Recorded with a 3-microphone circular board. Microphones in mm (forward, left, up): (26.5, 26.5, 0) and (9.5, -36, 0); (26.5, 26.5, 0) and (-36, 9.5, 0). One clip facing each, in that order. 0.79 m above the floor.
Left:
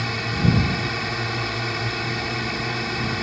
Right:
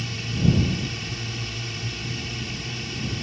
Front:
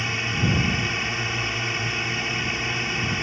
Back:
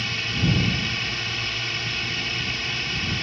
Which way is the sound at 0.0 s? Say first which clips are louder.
Left 2 dB, front 1 dB; 80° left.